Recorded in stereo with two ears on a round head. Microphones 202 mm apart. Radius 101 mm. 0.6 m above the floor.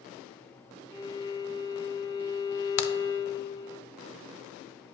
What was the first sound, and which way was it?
A violin, 15° left (ahead or behind).